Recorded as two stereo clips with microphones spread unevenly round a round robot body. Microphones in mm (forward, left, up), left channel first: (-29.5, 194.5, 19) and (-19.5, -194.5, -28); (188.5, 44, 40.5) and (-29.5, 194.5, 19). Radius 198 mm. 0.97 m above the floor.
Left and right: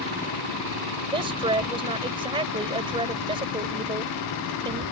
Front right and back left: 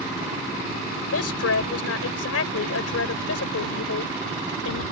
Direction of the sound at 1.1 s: 10° right.